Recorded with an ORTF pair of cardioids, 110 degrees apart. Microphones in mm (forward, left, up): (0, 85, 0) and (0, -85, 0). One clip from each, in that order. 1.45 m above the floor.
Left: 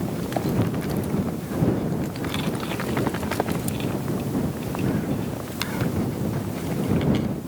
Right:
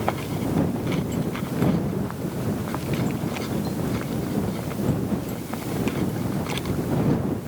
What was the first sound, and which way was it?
Only background noise.